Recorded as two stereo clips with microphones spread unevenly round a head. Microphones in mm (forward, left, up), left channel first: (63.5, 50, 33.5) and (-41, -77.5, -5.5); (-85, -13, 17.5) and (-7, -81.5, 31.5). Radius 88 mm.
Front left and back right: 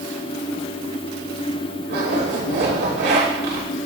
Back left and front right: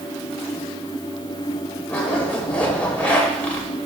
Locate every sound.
1.9 s a zipper: 145° right, 3 m